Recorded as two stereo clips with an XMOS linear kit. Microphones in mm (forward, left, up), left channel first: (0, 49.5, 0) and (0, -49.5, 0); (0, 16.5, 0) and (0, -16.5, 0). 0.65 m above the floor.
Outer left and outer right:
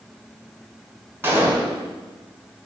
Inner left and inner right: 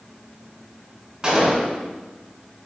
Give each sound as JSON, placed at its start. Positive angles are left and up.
{"t": 1.2, "sound": "a gunshot", "side_deg": -25, "distance_m": 0.5}